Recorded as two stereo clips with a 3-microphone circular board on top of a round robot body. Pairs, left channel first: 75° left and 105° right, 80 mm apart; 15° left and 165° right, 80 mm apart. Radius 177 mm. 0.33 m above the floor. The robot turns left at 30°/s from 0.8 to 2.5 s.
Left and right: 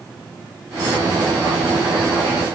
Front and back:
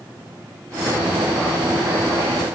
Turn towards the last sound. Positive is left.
No sound to turn to.